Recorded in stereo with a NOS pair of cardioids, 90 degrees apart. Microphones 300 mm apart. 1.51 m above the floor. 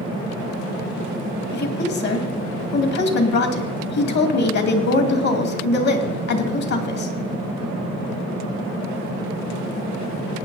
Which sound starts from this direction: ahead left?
A woman speaking, at 1.5 s.